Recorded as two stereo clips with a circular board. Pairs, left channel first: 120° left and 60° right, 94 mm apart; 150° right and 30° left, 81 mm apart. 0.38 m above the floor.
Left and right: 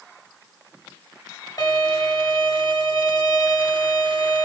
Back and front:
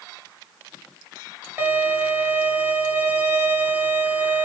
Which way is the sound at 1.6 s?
90° left.